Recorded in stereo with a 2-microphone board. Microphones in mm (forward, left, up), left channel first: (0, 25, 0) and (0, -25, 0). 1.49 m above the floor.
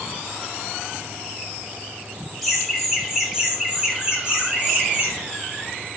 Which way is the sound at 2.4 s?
Centre (ahead or behind).